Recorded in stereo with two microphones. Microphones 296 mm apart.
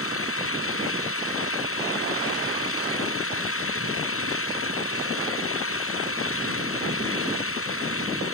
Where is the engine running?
45° left (ahead or behind).